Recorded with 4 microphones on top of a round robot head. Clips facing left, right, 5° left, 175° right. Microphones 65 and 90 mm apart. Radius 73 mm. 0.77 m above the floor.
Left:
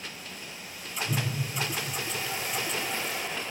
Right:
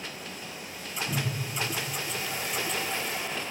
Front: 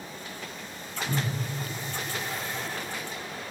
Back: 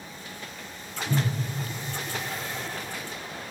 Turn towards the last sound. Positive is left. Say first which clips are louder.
# left 1 dB, back 3 dB
turn(degrees=-15)